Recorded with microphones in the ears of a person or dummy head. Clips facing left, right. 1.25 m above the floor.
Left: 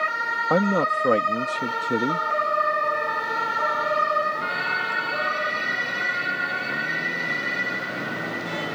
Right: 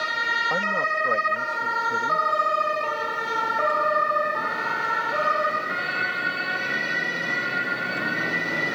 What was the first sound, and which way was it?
A man speaking, 65° left (ahead or behind).